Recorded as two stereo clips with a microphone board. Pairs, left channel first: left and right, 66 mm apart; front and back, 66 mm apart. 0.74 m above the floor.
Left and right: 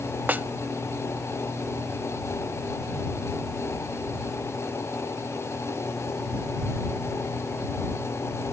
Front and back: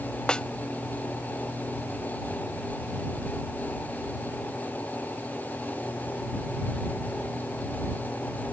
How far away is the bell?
I don't hear a bell.